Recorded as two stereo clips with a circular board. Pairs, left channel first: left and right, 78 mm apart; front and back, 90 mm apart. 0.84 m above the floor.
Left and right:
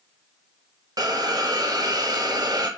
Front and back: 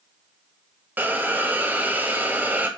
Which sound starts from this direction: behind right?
A hiss, at 1.0 s.